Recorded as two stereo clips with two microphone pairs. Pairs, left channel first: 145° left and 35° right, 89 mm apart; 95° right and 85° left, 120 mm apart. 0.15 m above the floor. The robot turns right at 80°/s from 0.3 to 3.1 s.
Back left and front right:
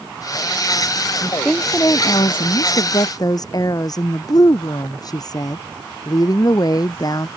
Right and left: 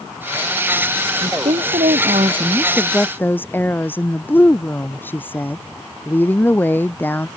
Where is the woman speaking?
40° left; by 7.3 s 170° right.